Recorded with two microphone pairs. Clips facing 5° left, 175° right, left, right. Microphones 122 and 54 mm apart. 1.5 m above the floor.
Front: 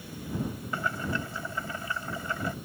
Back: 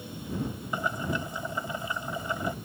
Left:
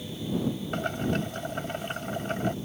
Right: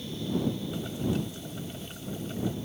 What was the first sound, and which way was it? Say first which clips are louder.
Boiling: back 2 dB, left 2 dB; 115° left.